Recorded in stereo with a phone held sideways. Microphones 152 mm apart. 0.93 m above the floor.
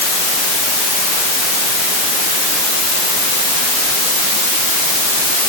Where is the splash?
No splash in this recording.